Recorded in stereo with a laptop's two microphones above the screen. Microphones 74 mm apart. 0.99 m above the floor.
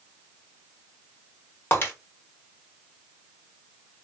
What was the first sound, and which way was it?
Breaking glass, 30° left (ahead or behind).